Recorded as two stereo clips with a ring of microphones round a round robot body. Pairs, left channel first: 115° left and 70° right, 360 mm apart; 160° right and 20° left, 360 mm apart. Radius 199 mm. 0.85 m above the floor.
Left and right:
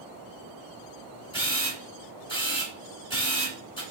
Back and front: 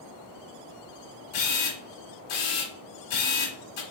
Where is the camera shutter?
170° right, 1.4 m.